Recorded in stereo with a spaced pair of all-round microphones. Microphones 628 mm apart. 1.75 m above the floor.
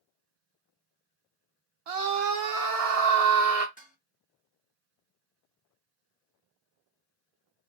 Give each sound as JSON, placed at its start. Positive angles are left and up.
{"t": 1.9, "sound": "a scream", "side_deg": -65, "distance_m": 0.6}
{"t": 3.8, "sound": "dishes clattering", "side_deg": 15, "distance_m": 0.9}